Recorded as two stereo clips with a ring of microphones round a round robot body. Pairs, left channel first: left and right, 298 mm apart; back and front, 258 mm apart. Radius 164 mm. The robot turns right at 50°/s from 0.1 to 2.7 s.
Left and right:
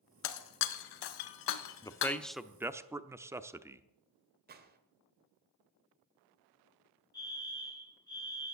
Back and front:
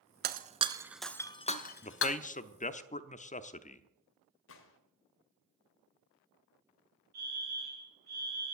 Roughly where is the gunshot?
Behind right.